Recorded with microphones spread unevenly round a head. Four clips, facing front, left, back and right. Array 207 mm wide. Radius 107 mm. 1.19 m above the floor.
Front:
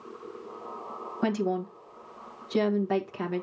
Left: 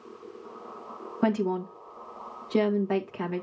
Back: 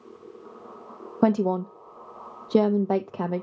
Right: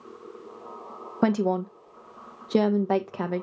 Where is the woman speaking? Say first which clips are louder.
Right 3 dB, back 6 dB; 150° right, 1.1 m.